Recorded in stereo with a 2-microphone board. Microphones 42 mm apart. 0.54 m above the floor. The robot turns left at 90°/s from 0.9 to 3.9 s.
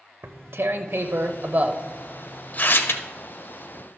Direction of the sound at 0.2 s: 75° right (ahead or behind).